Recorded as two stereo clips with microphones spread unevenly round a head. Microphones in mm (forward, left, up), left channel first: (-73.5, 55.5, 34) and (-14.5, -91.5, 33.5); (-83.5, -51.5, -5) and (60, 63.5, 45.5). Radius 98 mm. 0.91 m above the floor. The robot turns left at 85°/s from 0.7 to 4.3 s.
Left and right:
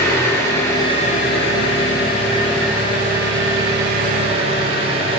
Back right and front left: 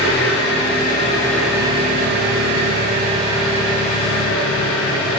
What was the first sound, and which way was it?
An engine running, 175° right.